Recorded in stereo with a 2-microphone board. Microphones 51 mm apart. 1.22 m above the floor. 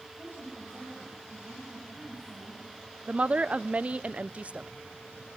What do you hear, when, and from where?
0.2 s a woman speaking: 40° right (ahead or behind), 7 m
3.1 s a woman speaking: 25° right (ahead or behind), 0.5 m